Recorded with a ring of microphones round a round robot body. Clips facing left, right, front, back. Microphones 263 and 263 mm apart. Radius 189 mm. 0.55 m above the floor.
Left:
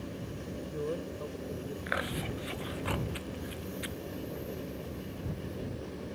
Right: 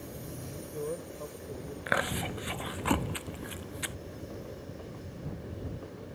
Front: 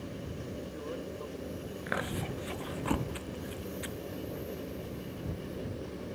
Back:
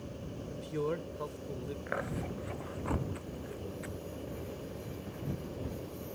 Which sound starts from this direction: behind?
A man speaking, at 0.5 s.